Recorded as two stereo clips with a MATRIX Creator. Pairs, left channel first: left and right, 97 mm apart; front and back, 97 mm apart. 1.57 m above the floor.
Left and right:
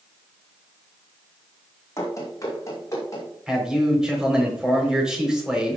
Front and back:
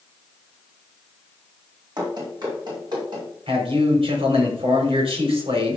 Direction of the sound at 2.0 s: 140° left.